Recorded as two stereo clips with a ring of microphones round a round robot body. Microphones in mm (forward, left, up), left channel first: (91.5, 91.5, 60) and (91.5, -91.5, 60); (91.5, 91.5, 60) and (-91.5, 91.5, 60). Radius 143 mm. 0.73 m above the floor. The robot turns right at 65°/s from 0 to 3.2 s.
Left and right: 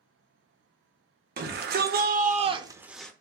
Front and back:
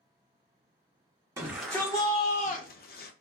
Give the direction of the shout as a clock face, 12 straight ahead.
4 o'clock.